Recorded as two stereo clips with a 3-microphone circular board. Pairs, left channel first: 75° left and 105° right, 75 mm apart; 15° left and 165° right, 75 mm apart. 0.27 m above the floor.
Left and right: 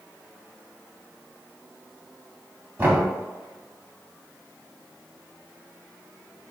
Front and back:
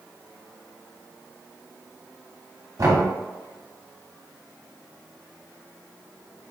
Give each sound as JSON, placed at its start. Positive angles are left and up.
{"t": 2.8, "sound": "knocking", "azimuth_deg": -160, "distance_m": 1.3}